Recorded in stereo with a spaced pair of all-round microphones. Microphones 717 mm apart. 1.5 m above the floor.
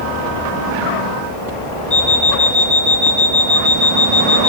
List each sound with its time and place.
1.9 s an alarm clock: 15° right (ahead or behind), 2.5 m